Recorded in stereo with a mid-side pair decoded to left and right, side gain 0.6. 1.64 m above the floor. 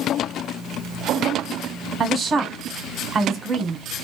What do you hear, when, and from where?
2.0 s a woman speaking: 35° right, 0.8 m